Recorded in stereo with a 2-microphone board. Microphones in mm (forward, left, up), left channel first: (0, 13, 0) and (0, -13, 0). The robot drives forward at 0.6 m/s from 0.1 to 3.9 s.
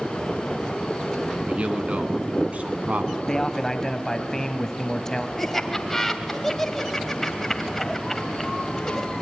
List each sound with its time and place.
1.5 s a man speaking: 50° right (ahead or behind), 2 m; by 3.1 s 60° right (ahead or behind), 1.9 m
3.2 s a man speaking: 25° left (ahead or behind), 1.1 m; by 5.3 s 20° left (ahead or behind), 1.2 m
5.4 s laughter: 10° left (ahead or behind), 1.3 m